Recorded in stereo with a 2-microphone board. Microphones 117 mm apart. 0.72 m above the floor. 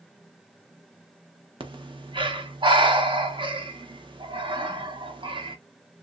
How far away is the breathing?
About 0.6 m.